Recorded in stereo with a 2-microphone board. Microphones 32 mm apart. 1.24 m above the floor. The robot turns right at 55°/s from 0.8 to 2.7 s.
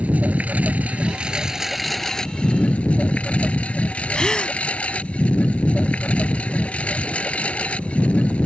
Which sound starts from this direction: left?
A gasp, at 4.2 s.